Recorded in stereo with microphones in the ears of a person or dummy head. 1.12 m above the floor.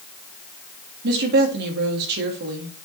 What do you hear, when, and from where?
1.0 s a woman speaking: 55° right (ahead or behind), 1.7 m